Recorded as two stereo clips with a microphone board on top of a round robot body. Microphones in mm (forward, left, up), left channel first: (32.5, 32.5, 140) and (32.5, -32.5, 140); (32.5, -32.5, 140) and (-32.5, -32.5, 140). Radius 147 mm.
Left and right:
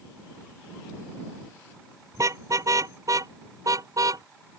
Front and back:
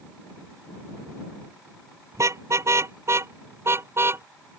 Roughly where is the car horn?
Behind right.